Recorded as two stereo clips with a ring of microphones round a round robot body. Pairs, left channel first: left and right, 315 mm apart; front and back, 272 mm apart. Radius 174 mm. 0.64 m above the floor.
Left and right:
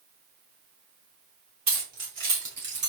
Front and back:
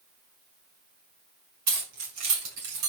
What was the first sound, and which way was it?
Keys jangling, 140° right.